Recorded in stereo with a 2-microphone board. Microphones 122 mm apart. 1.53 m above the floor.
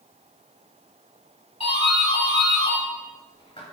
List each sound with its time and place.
1.6 s a doorbell: 50° left (ahead or behind), 3 m